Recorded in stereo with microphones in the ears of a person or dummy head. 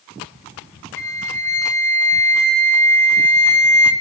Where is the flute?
20° left (ahead or behind), 1.4 m.